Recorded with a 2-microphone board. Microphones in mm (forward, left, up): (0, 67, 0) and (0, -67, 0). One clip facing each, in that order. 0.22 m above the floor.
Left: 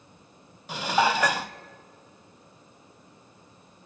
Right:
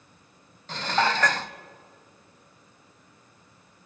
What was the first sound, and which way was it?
Dishes clattering, 10° left (ahead or behind).